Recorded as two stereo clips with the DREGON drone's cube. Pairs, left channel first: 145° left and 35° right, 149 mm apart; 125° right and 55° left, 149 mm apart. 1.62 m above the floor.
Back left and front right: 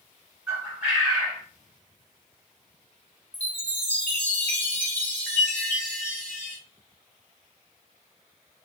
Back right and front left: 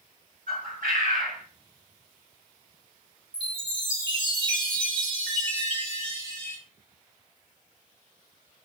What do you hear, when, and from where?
0.5 s a bird: 45° left, 2 m
3.3 s a chime: 75° left, 1.4 m